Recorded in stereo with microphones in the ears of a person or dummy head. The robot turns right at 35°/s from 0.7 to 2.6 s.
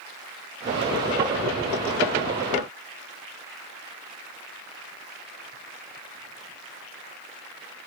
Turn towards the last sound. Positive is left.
No sound to turn to.